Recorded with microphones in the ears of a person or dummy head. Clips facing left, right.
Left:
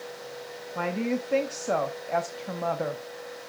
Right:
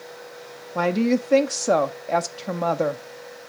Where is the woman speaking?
65° right (ahead or behind), 0.5 m.